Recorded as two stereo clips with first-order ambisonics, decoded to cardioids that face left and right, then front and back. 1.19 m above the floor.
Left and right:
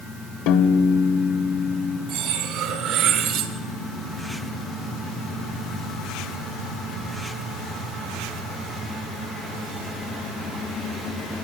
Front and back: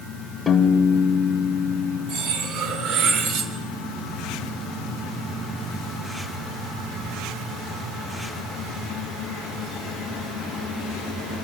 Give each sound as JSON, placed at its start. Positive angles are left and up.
{"t": 0.5, "sound": "a piano", "azimuth_deg": 80, "distance_m": 1.8}
{"t": 2.1, "sound": "cutlery clinking", "azimuth_deg": -135, "distance_m": 2.5}